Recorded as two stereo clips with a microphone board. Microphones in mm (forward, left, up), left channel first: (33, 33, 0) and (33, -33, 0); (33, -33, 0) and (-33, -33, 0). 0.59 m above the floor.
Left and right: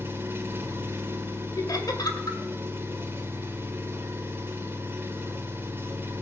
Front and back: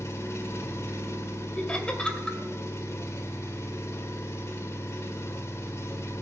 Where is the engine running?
40° right, 1.8 m.